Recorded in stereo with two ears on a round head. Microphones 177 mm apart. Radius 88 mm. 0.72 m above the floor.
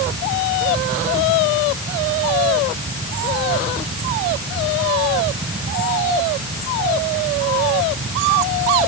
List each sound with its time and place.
Only background noise.